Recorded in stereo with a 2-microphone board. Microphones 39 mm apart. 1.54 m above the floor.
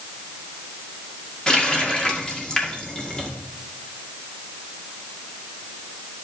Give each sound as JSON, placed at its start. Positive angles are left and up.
{"t": 1.5, "sound": "a running tap", "side_deg": 25, "distance_m": 2.0}